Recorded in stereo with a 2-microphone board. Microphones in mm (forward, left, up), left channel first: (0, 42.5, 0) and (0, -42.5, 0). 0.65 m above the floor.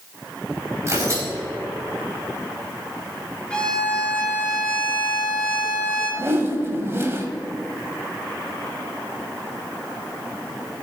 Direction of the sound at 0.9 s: 35° right (ahead or behind).